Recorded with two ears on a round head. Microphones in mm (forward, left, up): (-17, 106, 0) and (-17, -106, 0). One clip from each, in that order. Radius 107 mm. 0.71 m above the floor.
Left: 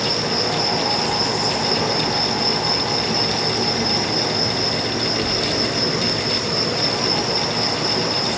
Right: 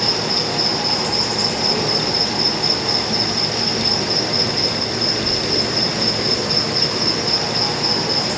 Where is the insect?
35° right (ahead or behind), 5.5 m.